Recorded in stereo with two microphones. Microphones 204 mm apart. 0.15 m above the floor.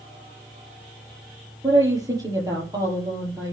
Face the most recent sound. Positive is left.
turn(degrees=-15)  # may be behind; listen again after turning